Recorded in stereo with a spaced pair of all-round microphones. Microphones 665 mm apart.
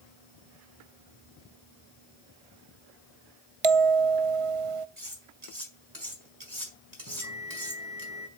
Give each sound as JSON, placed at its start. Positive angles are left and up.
{"t": 3.6, "sound": "a bell", "side_deg": -55, "distance_m": 0.6}
{"t": 5.0, "sound": "cutlery clinking", "side_deg": -75, "distance_m": 5.0}
{"t": 7.1, "sound": "a bell", "side_deg": 30, "distance_m": 3.0}